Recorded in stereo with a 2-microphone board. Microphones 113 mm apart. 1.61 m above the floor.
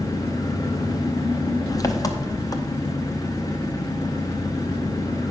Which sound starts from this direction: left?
An engine running, at 0.0 s.